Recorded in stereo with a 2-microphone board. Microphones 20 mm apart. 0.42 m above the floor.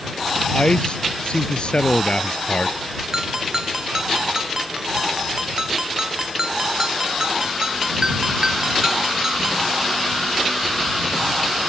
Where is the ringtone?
30° right (ahead or behind).